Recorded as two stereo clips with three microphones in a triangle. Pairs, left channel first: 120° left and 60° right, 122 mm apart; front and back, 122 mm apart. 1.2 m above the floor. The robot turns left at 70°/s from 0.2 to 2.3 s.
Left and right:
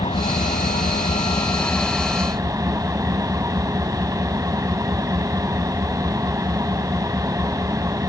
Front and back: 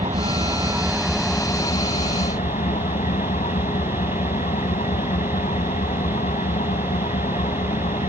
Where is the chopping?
I don't hear chopping.